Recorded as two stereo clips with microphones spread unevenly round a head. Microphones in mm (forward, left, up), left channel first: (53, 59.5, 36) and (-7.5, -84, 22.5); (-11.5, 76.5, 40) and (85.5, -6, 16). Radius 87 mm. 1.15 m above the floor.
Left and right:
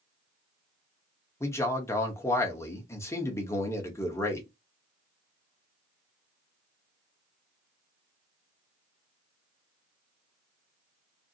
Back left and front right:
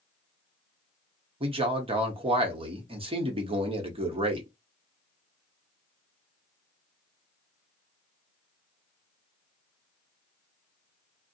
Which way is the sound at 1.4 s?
5° right.